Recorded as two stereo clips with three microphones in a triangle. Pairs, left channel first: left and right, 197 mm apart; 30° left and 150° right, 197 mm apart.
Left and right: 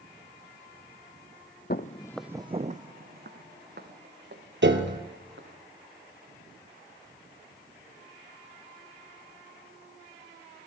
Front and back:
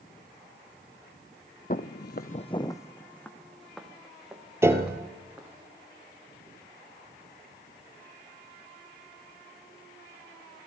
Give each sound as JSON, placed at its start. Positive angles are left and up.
{"t": 1.7, "sound": "footsteps", "azimuth_deg": 65, "distance_m": 0.6}
{"t": 4.6, "sound": "a piano", "azimuth_deg": -70, "distance_m": 1.4}